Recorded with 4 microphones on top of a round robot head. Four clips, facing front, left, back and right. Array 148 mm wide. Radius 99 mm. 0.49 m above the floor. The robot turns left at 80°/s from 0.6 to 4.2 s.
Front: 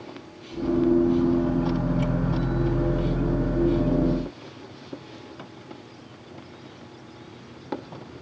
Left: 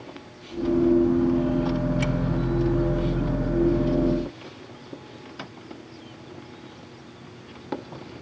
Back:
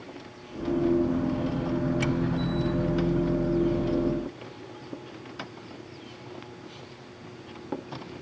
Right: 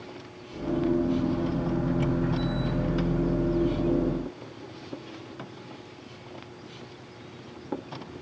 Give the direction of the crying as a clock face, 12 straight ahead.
No crying in this recording.